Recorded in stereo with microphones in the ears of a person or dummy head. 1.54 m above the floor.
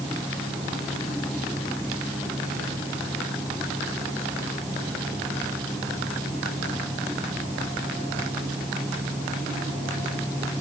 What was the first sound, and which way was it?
Only background noise.